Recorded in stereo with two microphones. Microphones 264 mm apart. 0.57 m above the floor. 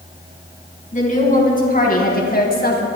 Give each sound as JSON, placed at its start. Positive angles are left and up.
{"t": 0.9, "sound": "a woman speaking", "side_deg": 30, "distance_m": 5.0}